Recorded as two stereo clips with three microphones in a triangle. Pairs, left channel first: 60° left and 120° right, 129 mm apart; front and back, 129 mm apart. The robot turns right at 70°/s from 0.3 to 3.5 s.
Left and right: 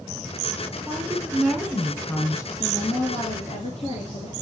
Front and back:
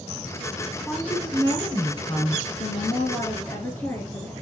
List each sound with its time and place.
0.9 s a woman speaking: 80° right, 1.4 m; by 2.5 s 35° left, 1.4 m
2.6 s a woman speaking: straight ahead, 2 m; by 4.3 s 65° left, 2 m